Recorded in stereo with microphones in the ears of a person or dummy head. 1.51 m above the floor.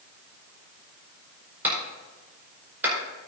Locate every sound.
1.6 s a clap: 10° right (ahead or behind), 4.5 m